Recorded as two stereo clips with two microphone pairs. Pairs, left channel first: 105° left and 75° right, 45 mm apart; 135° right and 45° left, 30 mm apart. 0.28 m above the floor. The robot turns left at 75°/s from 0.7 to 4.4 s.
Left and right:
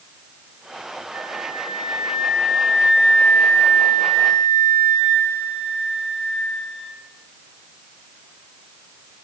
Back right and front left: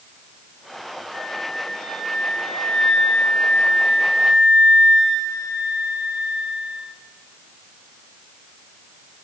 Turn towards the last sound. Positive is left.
turn(degrees=70)